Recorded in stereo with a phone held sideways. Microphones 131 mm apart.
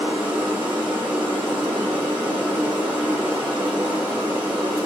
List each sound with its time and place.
0.0 s running water: 40° right (ahead or behind), 2 m